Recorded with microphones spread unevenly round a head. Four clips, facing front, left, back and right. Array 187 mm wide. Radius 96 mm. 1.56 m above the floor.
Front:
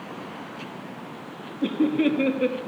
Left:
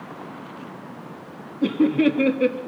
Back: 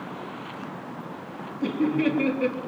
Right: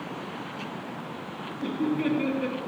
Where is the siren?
I don't hear a siren.